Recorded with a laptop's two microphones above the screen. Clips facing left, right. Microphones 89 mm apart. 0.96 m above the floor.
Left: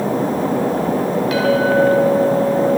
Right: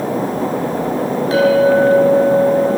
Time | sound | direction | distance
1.3 | a clink | 35° right (ahead or behind) | 4 m